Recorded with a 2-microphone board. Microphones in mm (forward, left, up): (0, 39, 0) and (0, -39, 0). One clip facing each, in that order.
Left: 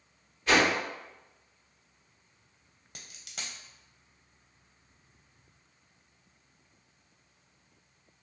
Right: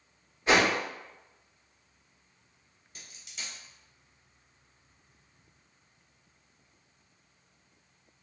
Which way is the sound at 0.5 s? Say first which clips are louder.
Right 1 dB; 25° right (ahead or behind).